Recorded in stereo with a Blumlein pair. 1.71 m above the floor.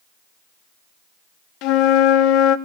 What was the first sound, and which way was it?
A flute, 40° left.